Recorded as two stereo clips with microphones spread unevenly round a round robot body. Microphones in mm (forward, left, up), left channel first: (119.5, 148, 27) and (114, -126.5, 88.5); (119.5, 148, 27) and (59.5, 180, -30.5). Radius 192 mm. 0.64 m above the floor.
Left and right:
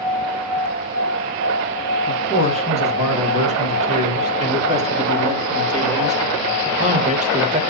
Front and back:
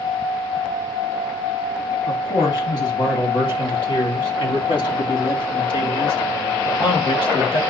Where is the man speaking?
20° right, 5.5 m; by 7.6 s 25° right, 2.5 m.